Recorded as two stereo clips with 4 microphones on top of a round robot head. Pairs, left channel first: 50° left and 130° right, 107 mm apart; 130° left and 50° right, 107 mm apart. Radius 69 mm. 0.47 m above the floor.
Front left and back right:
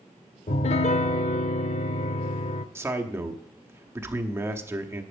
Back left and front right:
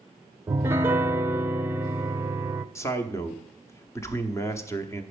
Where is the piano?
20° left, 0.5 m.